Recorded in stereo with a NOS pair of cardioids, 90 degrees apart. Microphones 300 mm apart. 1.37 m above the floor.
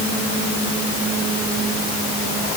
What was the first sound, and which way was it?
Only background noise.